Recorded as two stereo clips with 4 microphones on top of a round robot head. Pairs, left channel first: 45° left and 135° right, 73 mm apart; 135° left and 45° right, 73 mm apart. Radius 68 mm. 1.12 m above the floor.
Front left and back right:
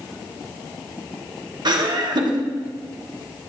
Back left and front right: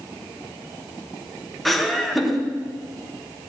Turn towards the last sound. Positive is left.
turn(degrees=-135)